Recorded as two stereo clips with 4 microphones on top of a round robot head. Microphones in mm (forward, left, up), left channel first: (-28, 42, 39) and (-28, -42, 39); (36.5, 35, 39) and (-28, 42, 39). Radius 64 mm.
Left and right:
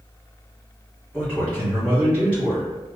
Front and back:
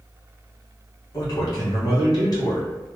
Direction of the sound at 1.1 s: 15° left.